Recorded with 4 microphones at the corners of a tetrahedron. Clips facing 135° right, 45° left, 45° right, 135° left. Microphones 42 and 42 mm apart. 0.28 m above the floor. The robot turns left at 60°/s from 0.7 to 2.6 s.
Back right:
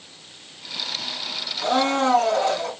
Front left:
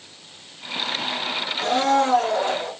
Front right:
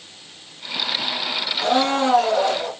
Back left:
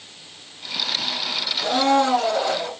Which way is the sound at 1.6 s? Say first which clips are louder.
Front left 1 dB, even; 75° right.